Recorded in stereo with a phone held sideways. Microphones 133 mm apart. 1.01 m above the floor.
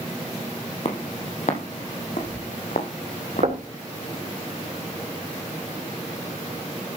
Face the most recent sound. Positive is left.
turn(degrees=-55)  # may be behind; listen again after turning